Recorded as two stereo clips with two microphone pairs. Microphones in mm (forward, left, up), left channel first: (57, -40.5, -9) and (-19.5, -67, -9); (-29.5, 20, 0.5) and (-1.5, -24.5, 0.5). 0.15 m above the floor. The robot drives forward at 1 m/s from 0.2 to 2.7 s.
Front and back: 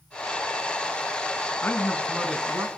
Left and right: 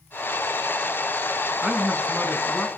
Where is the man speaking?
5° left, 1.1 m; by 2.7 s 175° left, 1.1 m.